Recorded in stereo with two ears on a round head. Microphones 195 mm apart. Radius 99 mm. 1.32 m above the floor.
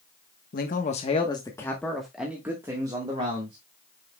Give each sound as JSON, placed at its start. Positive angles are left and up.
{"t": 0.5, "sound": "a man speaking", "side_deg": 40, "distance_m": 1.2}